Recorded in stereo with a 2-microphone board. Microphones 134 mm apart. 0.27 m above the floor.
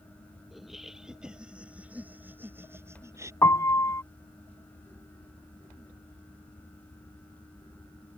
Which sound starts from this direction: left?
A piano, at 3.4 s.